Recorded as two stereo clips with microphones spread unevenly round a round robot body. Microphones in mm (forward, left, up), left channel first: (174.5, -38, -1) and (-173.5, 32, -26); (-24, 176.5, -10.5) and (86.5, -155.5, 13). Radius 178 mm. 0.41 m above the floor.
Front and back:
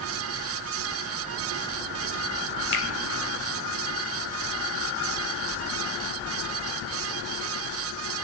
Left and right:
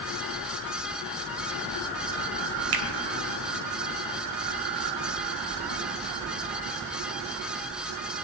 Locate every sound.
2.7 s a finger snap: 70° right, 2 m